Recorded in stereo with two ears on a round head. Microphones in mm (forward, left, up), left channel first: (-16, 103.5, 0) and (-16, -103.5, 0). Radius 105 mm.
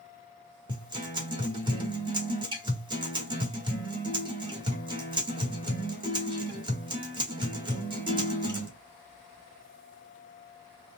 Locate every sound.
0.7 s a guitar: 20° right (ahead or behind), 1.3 m